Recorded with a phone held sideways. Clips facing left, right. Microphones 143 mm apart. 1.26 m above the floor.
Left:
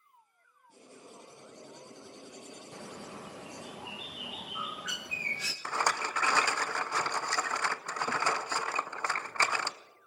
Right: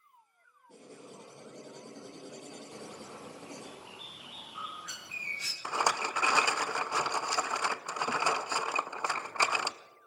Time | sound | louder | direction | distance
0.7 | writing | right 3 dB | 70° right (ahead or behind) | 8.5 m
2.7 | a bird | left 1 dB | 80° left | 0.9 m
5.7 | a rattle | right 1 dB | 15° right (ahead or behind) | 0.5 m